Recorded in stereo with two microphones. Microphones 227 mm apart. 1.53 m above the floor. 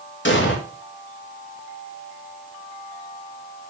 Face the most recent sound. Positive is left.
turn(degrees=55)  # may be behind; listen again after turning